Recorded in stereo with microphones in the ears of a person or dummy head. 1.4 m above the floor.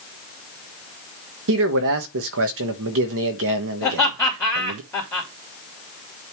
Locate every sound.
1.5 s a man speaking: 65° right (ahead or behind), 1.2 m
3.8 s laughter: 20° left (ahead or behind), 2.5 m